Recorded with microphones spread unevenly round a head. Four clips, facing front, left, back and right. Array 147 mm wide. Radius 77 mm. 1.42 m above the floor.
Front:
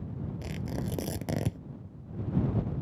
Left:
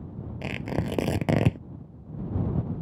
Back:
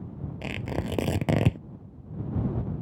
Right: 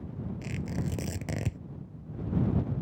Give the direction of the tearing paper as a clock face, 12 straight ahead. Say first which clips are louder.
Left 7 dB, back 6 dB; 8 o'clock.